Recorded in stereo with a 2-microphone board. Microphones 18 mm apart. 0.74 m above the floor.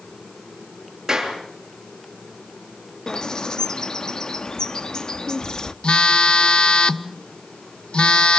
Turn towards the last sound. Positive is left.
turn(degrees=55)  # may be behind; listen again after turning